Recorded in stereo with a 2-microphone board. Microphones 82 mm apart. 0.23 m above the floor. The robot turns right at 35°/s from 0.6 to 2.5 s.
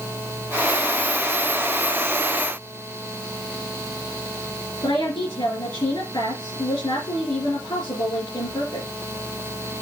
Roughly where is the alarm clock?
No alarm clock in this recording.